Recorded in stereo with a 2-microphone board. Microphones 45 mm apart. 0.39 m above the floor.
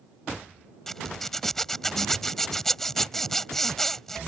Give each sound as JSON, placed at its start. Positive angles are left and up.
{"t": 0.9, "sound": "a zipper", "side_deg": 10}